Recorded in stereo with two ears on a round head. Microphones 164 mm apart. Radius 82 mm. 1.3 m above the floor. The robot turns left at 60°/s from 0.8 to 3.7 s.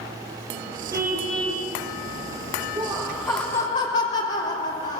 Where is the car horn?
160° right, 9.5 m; by 1.7 s 155° left, 9.5 m.